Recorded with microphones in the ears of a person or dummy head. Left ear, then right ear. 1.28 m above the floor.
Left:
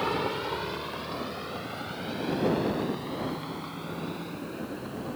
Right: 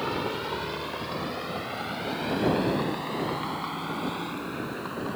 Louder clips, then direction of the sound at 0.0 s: Left 1 dB; 20° left (ahead or behind).